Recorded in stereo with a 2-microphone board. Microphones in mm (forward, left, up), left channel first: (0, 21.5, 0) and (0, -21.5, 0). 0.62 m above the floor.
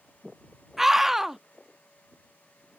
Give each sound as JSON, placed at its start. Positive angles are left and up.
{"t": 0.8, "sound": "a scream", "side_deg": -10}